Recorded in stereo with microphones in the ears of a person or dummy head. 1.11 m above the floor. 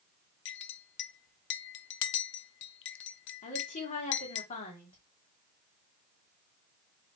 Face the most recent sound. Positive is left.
turn(degrees=40)  # may be behind; listen again after turning